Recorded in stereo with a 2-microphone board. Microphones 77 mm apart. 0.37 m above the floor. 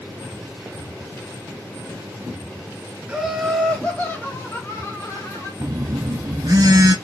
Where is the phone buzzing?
55° right (ahead or behind), 0.8 m.